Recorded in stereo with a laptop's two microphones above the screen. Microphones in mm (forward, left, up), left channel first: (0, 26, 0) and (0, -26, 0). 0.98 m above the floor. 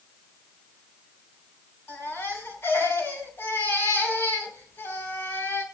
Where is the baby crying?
55° left (ahead or behind), 4.5 m.